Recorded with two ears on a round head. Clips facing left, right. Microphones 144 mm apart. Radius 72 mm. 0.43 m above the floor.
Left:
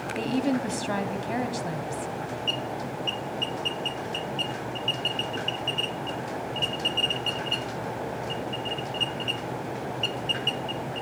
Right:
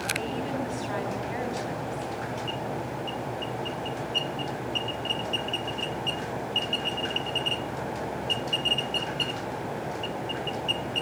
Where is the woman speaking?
65° left (ahead or behind), 4 m.